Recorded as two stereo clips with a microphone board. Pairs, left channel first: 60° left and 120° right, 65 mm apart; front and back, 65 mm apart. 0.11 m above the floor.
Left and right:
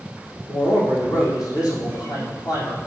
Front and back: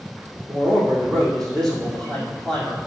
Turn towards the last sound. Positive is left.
turn(degrees=80)